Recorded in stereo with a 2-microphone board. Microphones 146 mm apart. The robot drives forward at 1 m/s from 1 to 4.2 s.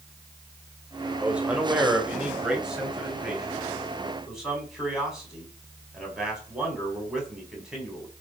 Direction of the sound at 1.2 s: 10° right (ahead or behind).